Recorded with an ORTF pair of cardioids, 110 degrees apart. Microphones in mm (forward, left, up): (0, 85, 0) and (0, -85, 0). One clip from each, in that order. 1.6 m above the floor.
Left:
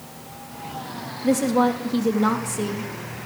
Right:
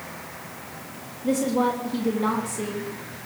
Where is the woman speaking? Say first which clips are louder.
Left 3 dB; 30° left, 3.5 m.